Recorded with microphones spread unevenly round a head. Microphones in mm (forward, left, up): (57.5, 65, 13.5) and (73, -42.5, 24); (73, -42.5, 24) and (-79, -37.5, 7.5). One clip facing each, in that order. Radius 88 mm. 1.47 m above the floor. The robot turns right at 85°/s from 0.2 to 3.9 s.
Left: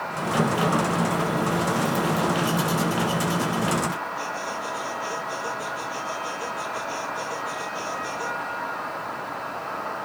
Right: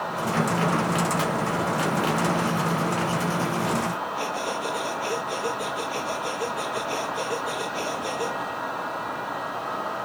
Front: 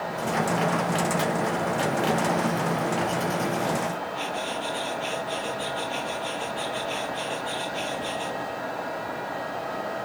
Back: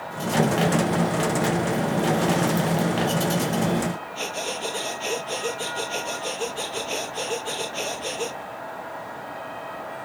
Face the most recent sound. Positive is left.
turn(degrees=-140)